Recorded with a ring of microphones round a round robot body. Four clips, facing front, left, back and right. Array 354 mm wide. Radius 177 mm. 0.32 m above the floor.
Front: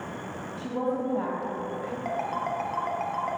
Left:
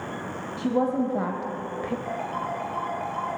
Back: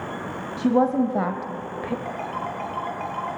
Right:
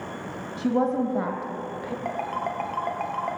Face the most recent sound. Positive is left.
turn(degrees=-75)